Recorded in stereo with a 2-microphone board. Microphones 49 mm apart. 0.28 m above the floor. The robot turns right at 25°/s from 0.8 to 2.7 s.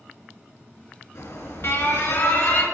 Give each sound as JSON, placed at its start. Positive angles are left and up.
{"t": 1.1, "sound": "an alarm", "azimuth_deg": 85, "distance_m": 3.0}